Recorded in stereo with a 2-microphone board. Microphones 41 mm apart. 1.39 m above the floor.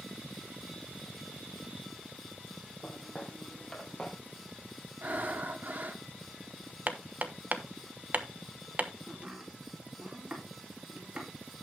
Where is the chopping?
30° right (ahead or behind), 4 m.